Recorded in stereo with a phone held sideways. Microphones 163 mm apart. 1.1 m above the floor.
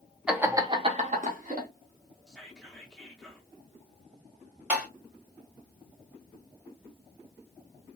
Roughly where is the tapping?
Centre.